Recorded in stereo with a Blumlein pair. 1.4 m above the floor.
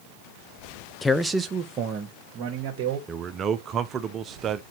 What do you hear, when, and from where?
1.0 s a man speaking: 15° left, 0.6 m; by 3.0 s 45° right, 2 m
3.1 s a man speaking: 25° right, 0.7 m